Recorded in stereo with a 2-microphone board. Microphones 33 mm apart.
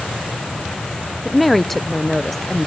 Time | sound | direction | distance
1.2 | a woman speaking | 5° left (ahead or behind) | 0.6 m